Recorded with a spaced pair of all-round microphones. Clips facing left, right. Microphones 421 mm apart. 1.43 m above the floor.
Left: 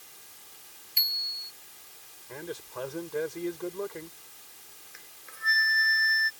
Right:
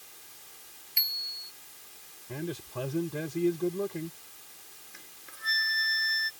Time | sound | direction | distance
1.0 | a bicycle bell | 50° left (ahead or behind) | ?
2.3 | a man speaking | 50° right (ahead or behind) | ?
4.9 | a flute | 50° right (ahead or behind) | ?